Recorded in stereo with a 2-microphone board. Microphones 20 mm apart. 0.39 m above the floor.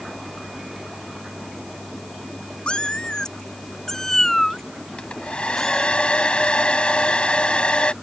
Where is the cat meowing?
55° left (ahead or behind); by 5.9 s 10° left (ahead or behind).